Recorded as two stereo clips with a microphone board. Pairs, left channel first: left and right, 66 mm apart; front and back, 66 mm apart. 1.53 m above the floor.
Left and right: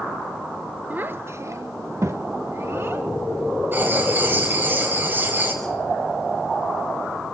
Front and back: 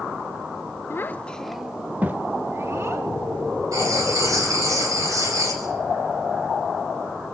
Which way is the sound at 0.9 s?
35° right.